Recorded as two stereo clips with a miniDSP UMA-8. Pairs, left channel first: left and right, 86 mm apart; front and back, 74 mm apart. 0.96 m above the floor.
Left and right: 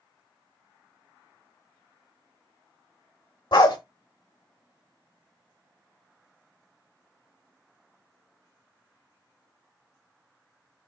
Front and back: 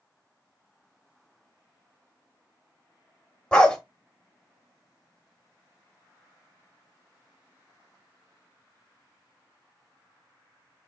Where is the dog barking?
75° left, 1.2 m.